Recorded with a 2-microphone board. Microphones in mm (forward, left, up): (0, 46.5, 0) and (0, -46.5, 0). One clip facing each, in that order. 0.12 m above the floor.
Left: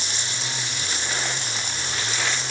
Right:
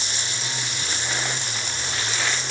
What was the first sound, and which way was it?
Only background noise.